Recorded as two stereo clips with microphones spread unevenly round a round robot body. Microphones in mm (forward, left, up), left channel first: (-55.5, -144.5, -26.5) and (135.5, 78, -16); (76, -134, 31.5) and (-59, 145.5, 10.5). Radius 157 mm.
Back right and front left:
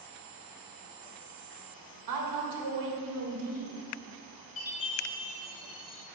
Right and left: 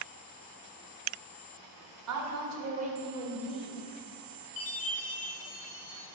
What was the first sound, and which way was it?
A woman speaking, 90° left.